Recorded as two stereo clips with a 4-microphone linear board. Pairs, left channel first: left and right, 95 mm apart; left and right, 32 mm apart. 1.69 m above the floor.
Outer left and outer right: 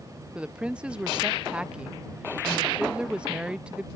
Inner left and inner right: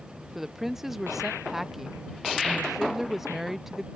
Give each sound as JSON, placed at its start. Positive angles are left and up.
{"t": 0.3, "sound": "a woman speaking", "side_deg": -10}